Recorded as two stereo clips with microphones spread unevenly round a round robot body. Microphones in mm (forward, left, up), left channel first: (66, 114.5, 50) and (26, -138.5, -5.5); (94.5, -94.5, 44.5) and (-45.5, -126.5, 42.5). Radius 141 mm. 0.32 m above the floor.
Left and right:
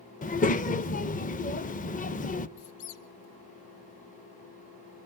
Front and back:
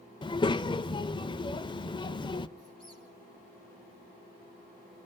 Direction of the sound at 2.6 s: 85° left.